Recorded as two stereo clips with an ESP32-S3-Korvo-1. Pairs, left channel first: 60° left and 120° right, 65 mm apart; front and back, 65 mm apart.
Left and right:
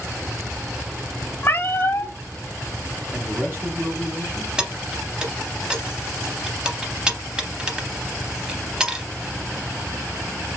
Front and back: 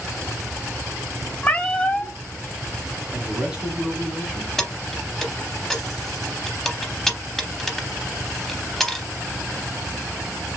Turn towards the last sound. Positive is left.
turn(degrees=-80)